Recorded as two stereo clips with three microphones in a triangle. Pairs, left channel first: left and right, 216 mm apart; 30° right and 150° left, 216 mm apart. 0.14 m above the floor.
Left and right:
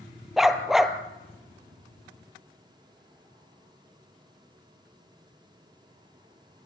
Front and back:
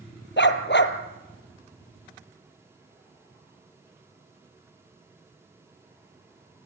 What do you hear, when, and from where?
0.4 s a dog barking: straight ahead, 1.7 m